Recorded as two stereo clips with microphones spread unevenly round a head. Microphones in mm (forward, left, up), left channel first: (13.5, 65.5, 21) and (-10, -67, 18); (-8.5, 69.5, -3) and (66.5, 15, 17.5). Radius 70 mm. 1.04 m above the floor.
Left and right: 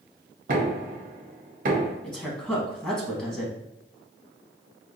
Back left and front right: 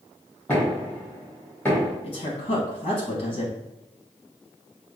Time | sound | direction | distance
0.5 | knocking | 135° right | 1.0 m
2.0 | a woman speaking | 165° left | 1.4 m